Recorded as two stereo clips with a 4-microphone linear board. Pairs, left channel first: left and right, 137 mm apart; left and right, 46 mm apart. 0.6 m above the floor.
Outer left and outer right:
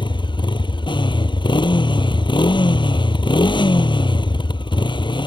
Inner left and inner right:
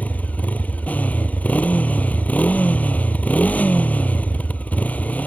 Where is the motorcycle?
35° left (ahead or behind).